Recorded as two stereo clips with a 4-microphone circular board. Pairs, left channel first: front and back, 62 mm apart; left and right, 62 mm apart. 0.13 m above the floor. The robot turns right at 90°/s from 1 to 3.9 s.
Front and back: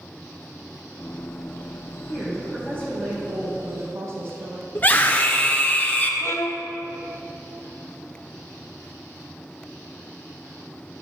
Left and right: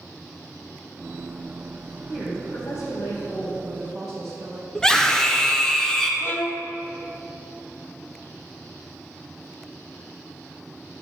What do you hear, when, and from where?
2.1 s a woman speaking: 20° left, 4 m; by 4.7 s 175° right, 4 m
4.8 s a scream: 20° left, 1.5 m
6.2 s a violin: 40° left, 0.6 m